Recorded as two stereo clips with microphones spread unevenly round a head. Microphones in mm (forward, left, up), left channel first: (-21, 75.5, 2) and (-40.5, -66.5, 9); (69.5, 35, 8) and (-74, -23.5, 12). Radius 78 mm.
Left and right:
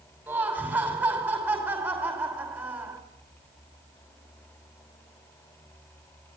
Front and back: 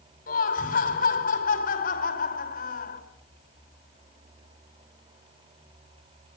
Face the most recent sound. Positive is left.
turn(degrees=-15)